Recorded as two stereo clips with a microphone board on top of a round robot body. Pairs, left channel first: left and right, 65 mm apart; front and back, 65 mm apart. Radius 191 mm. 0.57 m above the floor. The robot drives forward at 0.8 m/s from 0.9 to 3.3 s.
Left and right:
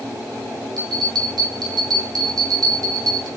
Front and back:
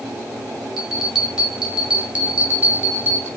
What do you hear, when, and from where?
0.8 s a bell: 95° right, 3.5 m; by 3.3 s 120° right, 4 m